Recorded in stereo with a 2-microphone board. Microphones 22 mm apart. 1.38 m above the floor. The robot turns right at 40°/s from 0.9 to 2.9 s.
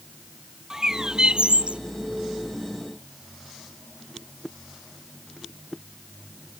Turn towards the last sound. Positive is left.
turn(degrees=-75)